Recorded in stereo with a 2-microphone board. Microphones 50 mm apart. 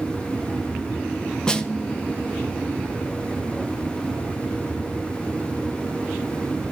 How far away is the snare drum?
About 0.6 m.